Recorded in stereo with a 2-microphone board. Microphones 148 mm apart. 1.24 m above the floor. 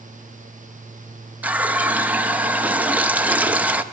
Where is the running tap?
10° right (ahead or behind), 0.6 m.